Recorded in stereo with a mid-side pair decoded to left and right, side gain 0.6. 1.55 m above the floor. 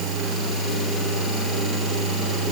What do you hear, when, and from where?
Only background noise.